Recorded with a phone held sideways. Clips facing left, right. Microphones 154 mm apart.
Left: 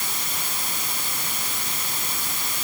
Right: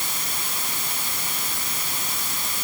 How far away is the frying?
I don't hear frying.